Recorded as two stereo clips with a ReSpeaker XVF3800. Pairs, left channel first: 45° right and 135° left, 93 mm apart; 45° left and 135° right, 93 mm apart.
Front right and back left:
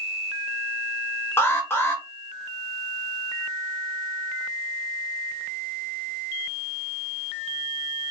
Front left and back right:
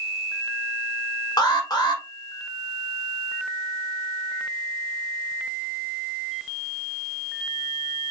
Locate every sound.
1.4 s an alarm: 15° left, 1.1 m